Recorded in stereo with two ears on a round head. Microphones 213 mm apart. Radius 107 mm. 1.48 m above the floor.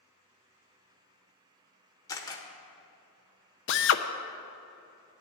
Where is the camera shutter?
15° left (ahead or behind), 1.4 m.